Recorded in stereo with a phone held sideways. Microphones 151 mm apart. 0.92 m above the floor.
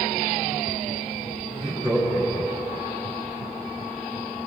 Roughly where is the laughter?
Left.